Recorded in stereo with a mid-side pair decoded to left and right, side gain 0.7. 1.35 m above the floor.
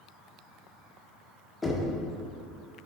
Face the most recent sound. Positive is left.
turn(degrees=15)